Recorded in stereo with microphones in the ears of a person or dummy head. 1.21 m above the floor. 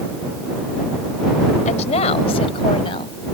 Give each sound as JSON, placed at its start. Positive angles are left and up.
{"t": 1.6, "sound": "a woman speaking", "side_deg": 40}